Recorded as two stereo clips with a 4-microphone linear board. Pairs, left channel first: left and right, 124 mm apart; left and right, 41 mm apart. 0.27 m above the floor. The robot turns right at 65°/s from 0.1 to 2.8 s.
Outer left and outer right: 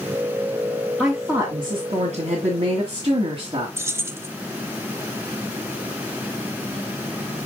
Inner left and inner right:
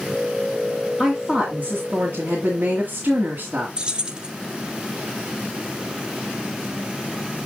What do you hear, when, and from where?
1.0 s a woman speaking: 165° right, 1.9 m; by 3.7 s 50° right, 1.9 m
3.8 s keys jangling: 20° right (ahead or behind), 0.9 m